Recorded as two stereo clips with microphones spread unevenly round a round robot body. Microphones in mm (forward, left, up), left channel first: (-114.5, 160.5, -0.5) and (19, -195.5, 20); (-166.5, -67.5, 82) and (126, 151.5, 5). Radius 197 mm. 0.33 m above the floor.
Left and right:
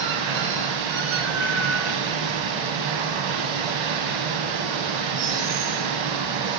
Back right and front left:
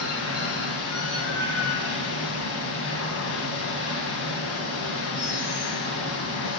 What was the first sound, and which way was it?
Running water, 85° right.